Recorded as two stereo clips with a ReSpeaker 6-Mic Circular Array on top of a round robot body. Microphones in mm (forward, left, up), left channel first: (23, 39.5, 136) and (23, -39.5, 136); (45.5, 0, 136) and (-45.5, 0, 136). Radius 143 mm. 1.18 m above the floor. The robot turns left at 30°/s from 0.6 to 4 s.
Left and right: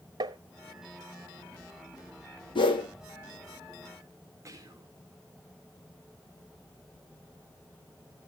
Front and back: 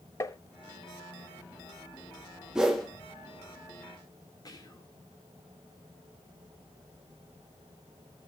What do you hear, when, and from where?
0.2 s tapping: 60° right, 0.7 m
2.5 s a whoosh: 100° left, 1.7 m; by 2.9 s 90° left, 1.7 m
4.5 s whispering: 40° right, 2 m